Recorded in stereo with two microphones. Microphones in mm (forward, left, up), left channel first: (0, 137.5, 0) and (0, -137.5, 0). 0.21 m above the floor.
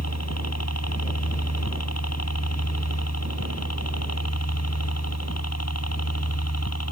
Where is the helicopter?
70° left (ahead or behind).